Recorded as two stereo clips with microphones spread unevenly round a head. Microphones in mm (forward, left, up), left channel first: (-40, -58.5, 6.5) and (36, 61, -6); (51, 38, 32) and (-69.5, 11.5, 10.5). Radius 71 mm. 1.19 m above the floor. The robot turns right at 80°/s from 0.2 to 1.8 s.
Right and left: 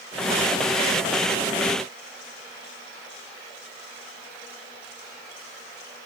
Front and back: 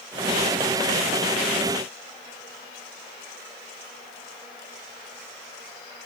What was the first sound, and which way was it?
Only background noise.